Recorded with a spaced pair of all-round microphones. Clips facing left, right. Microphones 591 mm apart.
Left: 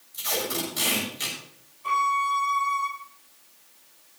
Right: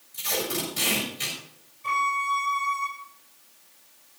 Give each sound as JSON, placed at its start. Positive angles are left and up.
{"t": 0.1, "sound": "tape being pulled", "side_deg": -50, "distance_m": 7.0}
{"t": 1.8, "sound": "a violin", "side_deg": -45, "distance_m": 5.5}